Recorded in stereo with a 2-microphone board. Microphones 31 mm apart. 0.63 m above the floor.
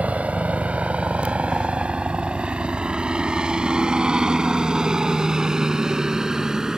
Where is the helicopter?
50° right (ahead or behind); by 6.8 s 20° right (ahead or behind).